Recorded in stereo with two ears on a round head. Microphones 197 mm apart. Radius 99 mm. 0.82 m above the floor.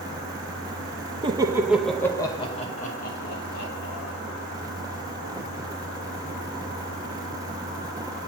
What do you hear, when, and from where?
1.2 s laughter: 20° right (ahead or behind), 0.9 m; by 4.1 s 55° left (ahead or behind), 1.6 m